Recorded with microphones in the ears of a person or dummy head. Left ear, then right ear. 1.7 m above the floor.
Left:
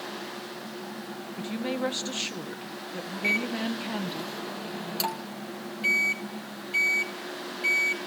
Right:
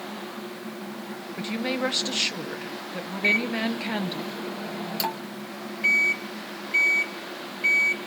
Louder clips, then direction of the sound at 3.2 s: Right 4 dB; centre (ahead or behind).